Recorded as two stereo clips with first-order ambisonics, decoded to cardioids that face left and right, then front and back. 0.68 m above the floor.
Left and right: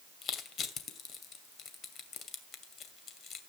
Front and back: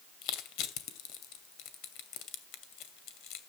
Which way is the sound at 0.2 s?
35° left.